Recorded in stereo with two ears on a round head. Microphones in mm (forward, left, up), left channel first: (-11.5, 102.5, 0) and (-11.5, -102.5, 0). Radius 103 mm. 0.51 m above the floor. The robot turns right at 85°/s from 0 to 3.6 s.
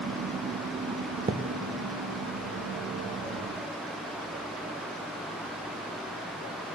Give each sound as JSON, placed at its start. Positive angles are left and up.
{"t": 1.3, "sound": "a thud", "side_deg": -25, "distance_m": 0.5}